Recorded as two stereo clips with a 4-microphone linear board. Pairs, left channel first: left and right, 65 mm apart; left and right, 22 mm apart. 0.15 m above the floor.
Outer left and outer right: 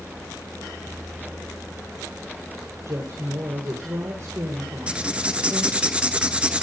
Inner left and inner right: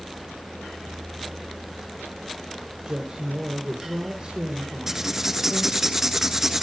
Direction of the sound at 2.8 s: 55° right (ahead or behind).